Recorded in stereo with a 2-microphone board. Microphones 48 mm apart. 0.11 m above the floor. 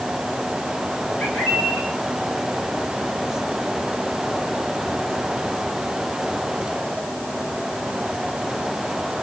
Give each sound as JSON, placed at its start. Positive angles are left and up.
{"t": 1.2, "sound": "a bird", "side_deg": 40, "distance_m": 3.5}